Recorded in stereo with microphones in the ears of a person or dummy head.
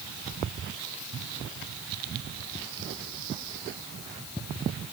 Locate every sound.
Only background noise.